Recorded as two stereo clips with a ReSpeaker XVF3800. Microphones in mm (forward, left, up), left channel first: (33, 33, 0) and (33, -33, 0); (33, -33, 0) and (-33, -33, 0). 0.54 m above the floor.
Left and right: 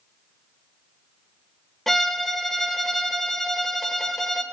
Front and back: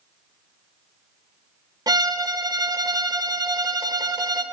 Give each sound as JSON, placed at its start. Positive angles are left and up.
{"t": 1.9, "sound": "a violin", "azimuth_deg": 175, "distance_m": 0.7}